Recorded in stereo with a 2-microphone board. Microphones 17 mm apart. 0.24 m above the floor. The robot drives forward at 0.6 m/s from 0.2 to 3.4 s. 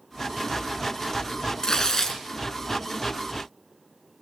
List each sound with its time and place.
1.6 s tearing paper: 45° left (ahead or behind), 1.6 m; by 2.2 s 35° left (ahead or behind), 1.8 m